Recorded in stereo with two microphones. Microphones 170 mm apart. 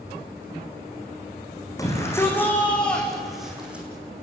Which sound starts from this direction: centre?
A shout, at 1.8 s.